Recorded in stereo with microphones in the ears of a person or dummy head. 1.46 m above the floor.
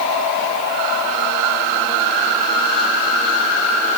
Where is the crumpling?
No crumpling in this recording.